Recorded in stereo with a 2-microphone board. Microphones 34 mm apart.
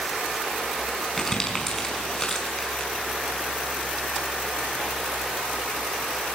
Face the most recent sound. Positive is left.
turn(degrees=15)  # may be behind; listen again after turning